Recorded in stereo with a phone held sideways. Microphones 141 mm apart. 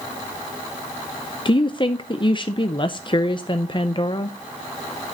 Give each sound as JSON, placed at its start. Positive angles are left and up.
{"t": 1.4, "sound": "a woman speaking", "side_deg": 35, "distance_m": 0.5}